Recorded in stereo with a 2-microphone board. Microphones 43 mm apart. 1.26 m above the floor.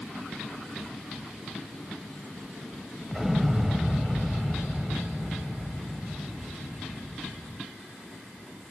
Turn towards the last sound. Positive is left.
turn(degrees=-10)  # may be behind; listen again after turning